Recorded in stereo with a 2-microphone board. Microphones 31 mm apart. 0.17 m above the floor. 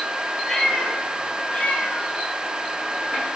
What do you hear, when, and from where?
0.5 s a cat meowing: 10° left (ahead or behind), 2.5 m; by 3.3 s 65° left (ahead or behind), 4.5 m